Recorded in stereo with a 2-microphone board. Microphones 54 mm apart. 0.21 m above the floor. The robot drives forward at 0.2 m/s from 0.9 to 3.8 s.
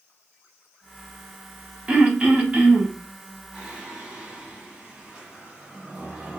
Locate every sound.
1.9 s throat clearing: 20° right (ahead or behind), 0.7 m
3.5 s singing: 10° right (ahead or behind), 1.6 m